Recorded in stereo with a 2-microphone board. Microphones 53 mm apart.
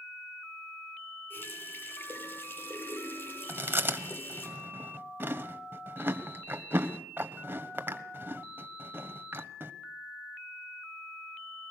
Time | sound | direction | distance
1.3 | a running tap | 45° left (ahead or behind) | 9 m
3.5 | chewing | 45° right (ahead or behind) | 1.2 m